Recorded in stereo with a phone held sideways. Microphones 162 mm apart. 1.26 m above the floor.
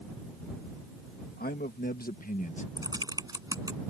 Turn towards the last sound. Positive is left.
turn(degrees=-25)  # may be behind; listen again after turning